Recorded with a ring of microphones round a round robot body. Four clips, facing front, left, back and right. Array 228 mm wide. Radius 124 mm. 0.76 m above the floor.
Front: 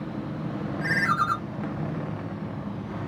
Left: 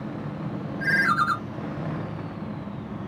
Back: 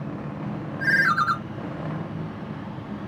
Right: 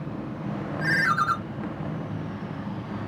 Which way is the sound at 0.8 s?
170° right.